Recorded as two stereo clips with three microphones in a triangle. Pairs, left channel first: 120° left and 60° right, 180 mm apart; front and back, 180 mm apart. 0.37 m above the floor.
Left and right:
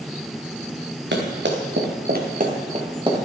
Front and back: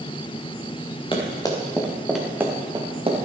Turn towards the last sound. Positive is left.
turn(degrees=-125)